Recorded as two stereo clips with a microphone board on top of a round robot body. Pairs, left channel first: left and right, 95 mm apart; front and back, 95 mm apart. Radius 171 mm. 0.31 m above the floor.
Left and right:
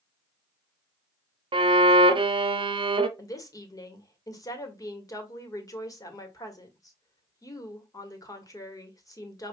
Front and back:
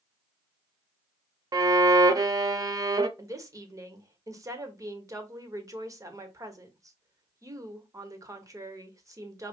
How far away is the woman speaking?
About 1.6 m.